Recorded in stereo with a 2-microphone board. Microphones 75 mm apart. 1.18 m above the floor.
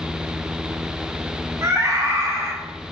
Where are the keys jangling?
I don't hear keys jangling.